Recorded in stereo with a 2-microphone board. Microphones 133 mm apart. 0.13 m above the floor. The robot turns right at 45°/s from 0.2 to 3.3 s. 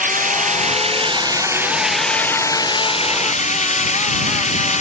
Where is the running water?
80° right; by 4.8 s 60° left.